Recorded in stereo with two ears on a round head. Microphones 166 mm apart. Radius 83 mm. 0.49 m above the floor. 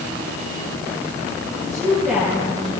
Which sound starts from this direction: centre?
A woman speaking, at 1.5 s.